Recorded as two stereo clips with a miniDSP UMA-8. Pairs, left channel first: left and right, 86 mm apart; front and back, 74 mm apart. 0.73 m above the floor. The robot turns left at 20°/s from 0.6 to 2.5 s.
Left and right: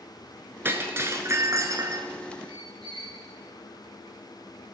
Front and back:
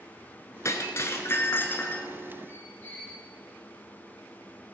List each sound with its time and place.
0.7 s breaking glass: 30° right, 0.9 m; by 2.1 s 60° right, 0.9 m
2.5 s a squeak: 65° right, 2.5 m